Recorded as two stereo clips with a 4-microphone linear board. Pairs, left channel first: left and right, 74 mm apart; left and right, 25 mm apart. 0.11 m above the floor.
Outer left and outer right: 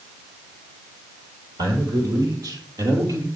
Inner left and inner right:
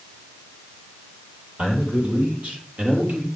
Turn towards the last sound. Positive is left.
turn(degrees=-60)  # may be behind; listen again after turning